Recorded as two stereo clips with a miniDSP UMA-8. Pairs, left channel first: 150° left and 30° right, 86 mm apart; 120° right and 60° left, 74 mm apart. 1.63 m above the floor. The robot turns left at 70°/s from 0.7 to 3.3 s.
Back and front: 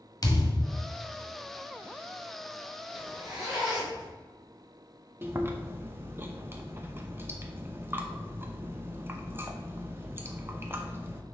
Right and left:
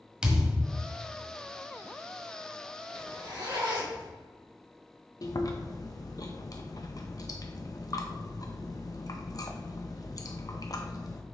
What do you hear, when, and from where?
0.2 s a thud: 135° left, 1.4 m; by 0.8 s 125° left, 1.4 m
2.9 s a zipper: 80° left, 3 m; by 4.1 s 55° left, 3 m
5.2 s chewing: 90° right, 0.7 m